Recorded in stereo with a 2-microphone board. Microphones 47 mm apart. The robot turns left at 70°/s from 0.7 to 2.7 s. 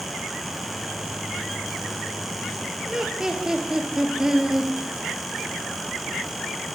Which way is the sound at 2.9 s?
15° right (ahead or behind).